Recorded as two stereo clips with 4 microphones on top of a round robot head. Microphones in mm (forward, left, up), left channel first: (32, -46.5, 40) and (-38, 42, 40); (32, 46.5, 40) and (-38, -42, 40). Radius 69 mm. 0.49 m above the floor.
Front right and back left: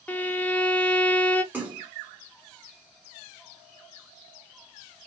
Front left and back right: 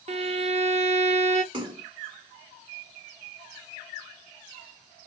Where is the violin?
125° right, 0.7 m.